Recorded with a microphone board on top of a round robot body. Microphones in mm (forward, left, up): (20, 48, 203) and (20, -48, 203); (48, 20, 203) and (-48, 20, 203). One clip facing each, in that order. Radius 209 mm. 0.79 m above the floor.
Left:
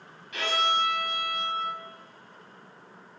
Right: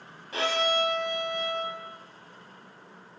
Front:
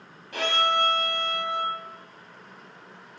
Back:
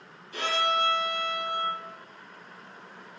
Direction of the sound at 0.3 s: 35° right.